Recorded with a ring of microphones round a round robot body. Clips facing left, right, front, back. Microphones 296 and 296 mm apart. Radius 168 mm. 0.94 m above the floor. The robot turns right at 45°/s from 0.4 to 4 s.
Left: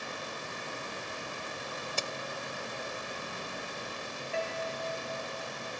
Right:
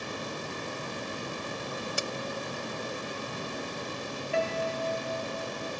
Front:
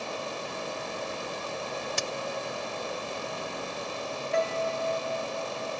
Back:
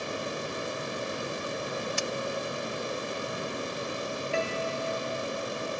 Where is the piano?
125° right.